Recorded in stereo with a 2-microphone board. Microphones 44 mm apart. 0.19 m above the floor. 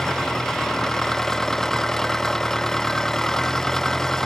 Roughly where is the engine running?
Centre.